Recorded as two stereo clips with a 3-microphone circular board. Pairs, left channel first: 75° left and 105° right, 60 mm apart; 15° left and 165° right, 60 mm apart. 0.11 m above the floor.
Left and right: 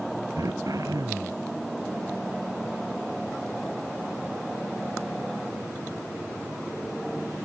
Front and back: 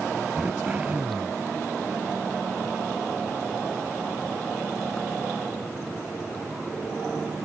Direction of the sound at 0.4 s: 100° right.